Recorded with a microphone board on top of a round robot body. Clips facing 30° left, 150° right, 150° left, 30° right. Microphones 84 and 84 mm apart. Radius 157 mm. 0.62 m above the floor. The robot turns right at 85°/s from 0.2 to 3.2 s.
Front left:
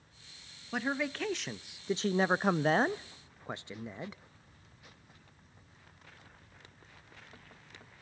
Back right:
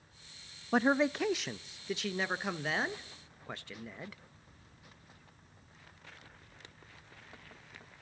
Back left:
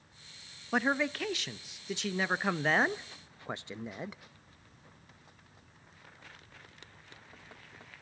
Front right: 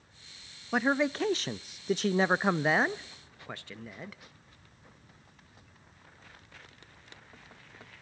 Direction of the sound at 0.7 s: 120° right.